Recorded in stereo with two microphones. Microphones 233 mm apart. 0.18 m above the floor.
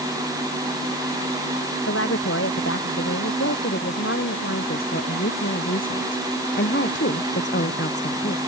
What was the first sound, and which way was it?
A woman speaking, 70° left (ahead or behind).